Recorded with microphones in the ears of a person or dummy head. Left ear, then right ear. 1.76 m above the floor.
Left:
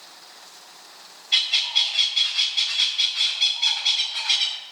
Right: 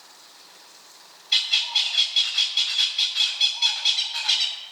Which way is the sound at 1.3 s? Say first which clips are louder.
Left 1 dB; 15° right (ahead or behind).